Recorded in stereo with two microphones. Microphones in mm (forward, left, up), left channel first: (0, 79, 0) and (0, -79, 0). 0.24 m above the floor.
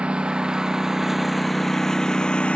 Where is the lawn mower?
10° right (ahead or behind); by 2.6 s 5° left (ahead or behind).